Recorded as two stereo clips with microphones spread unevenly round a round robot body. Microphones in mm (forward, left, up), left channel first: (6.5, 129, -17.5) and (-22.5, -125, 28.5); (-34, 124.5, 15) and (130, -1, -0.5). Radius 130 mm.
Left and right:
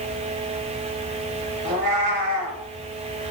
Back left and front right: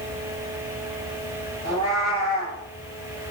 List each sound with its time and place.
1.6 s a cat meowing: 155° right, 3 m